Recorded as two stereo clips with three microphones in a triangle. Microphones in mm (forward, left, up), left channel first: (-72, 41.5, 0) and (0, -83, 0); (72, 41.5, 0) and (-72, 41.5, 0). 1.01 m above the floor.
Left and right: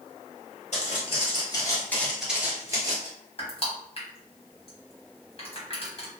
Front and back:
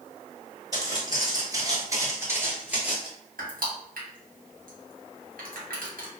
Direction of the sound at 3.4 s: 170° left.